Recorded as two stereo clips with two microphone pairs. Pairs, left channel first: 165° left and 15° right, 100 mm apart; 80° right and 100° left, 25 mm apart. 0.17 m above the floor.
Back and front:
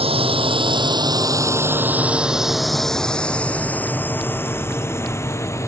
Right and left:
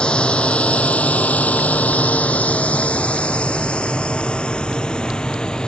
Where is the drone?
30° right; by 5.7 s 135° right.